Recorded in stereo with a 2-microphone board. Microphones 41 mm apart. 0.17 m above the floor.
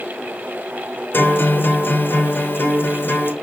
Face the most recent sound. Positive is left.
turn(degrees=60)  # may be behind; listen again after turning